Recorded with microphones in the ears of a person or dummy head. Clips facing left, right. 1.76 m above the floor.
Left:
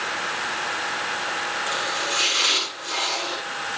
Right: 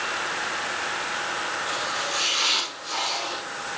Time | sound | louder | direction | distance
1.7 | chopping | left 2 dB | 40° left (ahead or behind) | 7 m